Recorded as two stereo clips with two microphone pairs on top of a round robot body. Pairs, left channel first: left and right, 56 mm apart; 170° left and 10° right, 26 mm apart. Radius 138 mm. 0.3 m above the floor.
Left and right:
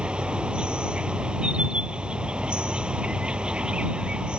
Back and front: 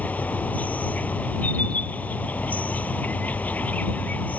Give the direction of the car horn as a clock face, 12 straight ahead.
I don't hear a car horn.